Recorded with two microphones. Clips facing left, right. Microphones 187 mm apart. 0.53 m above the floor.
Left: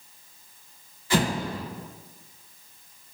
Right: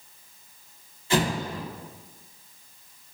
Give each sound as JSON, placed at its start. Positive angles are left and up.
{"t": 1.1, "sound": "an explosion", "side_deg": -25, "distance_m": 1.4}